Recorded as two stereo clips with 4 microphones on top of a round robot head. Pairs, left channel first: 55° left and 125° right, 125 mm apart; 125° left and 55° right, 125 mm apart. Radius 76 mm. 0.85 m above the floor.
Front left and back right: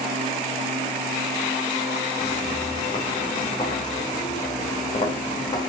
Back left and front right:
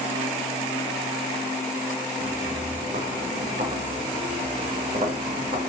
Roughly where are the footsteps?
Ahead.